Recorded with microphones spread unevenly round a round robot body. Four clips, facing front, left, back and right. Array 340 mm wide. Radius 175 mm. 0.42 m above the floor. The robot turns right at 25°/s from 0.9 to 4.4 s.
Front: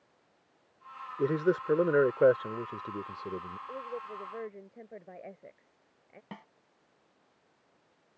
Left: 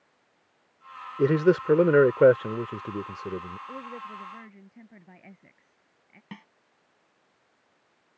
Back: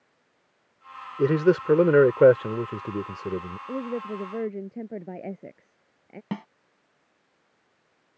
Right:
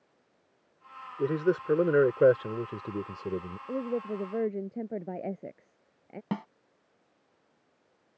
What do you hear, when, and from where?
1.2 s a man speaking: 140° left; by 3.6 s 160° right
3.7 s a woman speaking: 155° right; by 6.2 s 135° right
6.3 s a snare drum: 140° right